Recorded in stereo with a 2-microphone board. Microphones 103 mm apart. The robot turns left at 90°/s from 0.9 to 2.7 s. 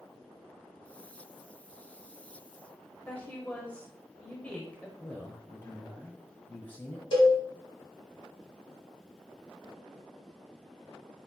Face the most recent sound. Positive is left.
turn(degrees=55)  # may be behind; listen again after turning